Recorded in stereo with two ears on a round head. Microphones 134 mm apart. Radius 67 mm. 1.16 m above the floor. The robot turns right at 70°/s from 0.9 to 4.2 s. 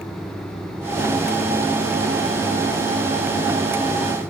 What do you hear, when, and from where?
Only background noise.